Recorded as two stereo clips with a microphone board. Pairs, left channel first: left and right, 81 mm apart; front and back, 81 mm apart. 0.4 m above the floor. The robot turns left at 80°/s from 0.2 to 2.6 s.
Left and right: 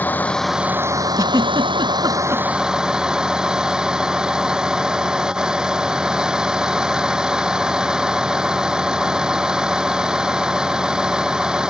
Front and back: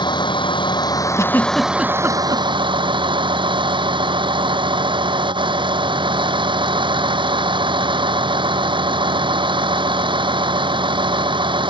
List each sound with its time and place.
0.0 s a vehicle: 20° left; by 11.7 s 170° right
1.2 s a giggle: 45° right; by 2.4 s 145° right